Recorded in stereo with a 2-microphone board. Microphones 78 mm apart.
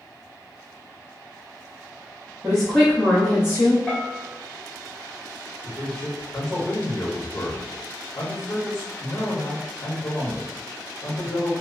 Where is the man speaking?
40° left (ahead or behind), 0.9 m.